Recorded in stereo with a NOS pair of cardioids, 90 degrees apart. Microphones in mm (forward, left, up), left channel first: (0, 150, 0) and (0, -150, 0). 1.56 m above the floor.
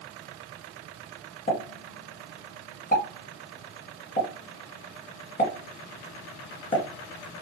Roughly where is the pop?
Ahead left.